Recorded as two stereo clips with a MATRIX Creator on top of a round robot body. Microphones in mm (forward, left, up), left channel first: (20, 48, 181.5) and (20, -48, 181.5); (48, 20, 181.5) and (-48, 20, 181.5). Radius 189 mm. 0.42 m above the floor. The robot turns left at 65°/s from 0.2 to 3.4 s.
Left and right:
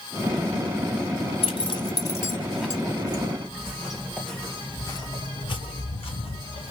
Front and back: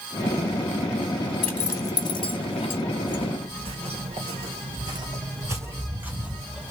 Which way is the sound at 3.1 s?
135° right.